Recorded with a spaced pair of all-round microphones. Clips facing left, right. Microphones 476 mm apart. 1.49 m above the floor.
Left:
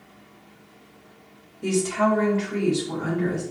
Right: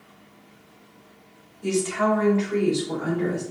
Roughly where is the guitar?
I don't hear a guitar.